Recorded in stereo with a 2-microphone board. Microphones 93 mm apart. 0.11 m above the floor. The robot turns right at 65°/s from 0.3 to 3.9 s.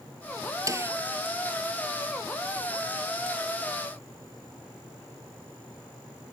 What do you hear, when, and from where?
0.7 s a snare drum: 35° right (ahead or behind); by 0.9 s 25° right (ahead or behind)